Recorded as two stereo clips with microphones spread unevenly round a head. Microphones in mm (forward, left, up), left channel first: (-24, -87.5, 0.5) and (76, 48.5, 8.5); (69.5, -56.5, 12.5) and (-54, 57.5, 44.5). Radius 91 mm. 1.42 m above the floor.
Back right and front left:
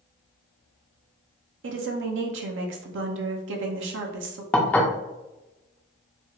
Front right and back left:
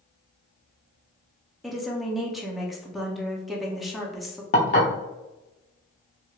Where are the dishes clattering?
50° right, 0.6 m.